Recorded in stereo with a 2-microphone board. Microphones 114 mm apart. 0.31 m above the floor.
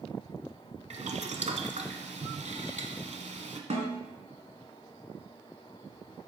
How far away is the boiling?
About 0.9 m.